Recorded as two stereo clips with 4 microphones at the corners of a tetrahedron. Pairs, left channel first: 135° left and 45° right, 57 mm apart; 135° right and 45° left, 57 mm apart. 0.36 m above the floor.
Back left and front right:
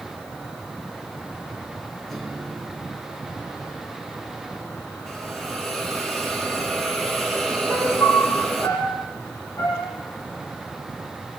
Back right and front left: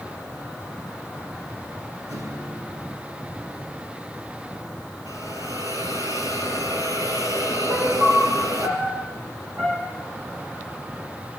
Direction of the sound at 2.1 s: 45° left.